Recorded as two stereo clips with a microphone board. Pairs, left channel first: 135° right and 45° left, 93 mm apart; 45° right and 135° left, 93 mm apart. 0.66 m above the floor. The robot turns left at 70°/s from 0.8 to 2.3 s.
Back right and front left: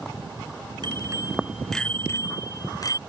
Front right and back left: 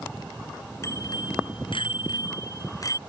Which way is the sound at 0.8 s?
10° left.